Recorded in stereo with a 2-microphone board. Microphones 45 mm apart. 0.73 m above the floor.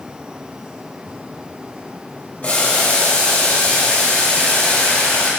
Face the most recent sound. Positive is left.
turn(degrees=30)  # may be behind; listen again after turning